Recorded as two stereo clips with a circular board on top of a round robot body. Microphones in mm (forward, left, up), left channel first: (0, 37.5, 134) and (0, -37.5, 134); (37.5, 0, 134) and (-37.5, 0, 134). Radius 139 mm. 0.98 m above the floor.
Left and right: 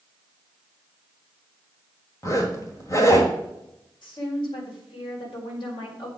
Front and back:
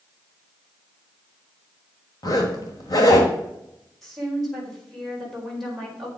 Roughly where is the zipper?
Ahead left.